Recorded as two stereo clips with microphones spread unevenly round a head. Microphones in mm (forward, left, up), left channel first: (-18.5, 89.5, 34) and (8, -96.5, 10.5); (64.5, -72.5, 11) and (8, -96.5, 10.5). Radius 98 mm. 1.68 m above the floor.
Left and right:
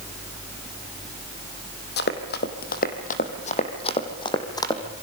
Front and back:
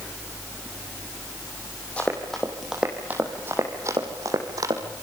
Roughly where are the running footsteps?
Left.